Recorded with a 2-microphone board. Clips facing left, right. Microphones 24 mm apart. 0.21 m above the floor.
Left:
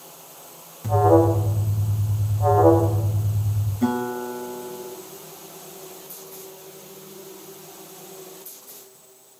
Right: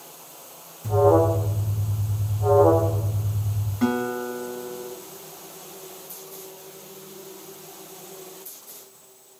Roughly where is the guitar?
Right.